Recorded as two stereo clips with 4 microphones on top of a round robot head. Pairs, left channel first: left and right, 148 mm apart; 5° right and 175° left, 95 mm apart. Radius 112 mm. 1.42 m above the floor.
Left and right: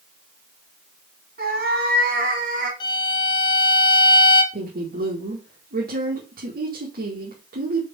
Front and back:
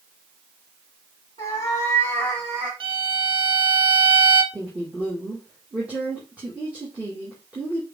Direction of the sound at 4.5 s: 105° right.